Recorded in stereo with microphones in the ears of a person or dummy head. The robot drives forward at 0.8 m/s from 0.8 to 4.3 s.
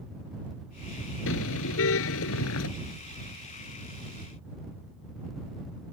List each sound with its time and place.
1.3 s a car horn: 75° left (ahead or behind); by 2.7 s 80° left